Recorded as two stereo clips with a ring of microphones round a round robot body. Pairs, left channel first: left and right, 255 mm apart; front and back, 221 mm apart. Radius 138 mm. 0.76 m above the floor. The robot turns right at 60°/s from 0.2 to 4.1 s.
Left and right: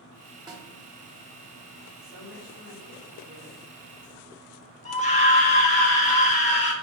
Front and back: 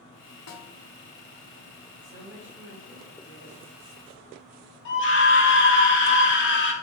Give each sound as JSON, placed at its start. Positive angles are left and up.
{"t": 0.5, "sound": "a snare drum", "azimuth_deg": -15, "distance_m": 1.0}
{"t": 2.0, "sound": "a woman speaking", "azimuth_deg": -120, "distance_m": 3.0}
{"t": 4.8, "sound": "a scream", "azimuth_deg": 30, "distance_m": 2.0}